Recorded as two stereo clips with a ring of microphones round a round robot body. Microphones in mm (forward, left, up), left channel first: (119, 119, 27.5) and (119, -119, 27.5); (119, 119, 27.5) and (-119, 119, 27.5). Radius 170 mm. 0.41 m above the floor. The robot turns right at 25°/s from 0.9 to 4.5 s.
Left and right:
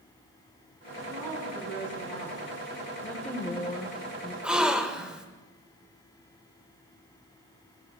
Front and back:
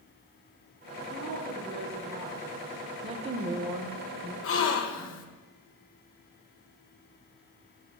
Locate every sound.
1.1 s a woman speaking: 120° right, 3.5 m; by 2.6 s 85° right, 3.5 m
3.0 s a woman speaking: 165° left, 0.8 m; by 4.3 s 165° right, 0.8 m
4.4 s a gasp: 5° right, 1.0 m